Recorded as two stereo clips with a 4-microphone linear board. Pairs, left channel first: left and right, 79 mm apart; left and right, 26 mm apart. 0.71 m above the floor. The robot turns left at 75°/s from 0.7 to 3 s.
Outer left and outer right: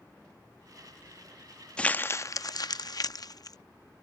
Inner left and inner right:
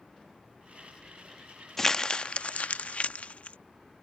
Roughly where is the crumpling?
Centre.